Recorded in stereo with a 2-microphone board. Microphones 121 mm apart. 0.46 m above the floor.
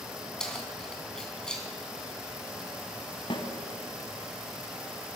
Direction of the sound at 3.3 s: 45° left (ahead or behind).